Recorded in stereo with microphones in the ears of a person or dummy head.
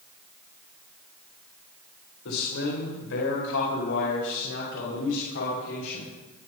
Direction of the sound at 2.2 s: 75° left (ahead or behind).